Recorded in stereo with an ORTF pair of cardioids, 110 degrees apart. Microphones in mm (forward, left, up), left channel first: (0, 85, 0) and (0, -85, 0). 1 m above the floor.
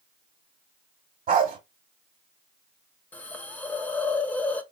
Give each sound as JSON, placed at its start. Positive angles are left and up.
{"t": 1.3, "sound": "a dog barking", "azimuth_deg": -55, "distance_m": 1.3}
{"t": 3.1, "sound": "a hiss", "azimuth_deg": 10, "distance_m": 0.6}